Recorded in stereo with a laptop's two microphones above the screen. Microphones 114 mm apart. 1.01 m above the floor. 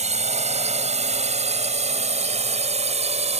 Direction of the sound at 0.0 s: 80° right.